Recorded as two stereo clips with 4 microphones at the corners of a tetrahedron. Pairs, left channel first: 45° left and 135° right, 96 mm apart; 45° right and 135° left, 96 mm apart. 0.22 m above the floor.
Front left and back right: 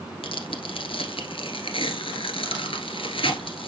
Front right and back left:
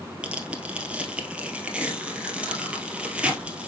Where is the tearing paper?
55° left, 1.6 m.